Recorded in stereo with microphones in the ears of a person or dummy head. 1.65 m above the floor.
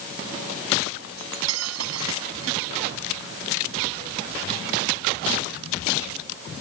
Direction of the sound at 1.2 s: 80° right.